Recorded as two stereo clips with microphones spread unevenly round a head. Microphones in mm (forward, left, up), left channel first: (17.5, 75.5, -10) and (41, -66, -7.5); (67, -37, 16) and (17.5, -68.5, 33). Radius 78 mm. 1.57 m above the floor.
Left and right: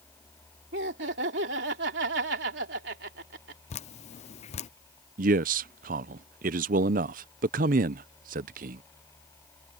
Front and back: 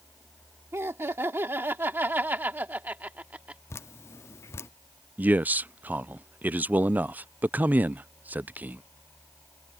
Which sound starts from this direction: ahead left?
Dripping, at 3.7 s.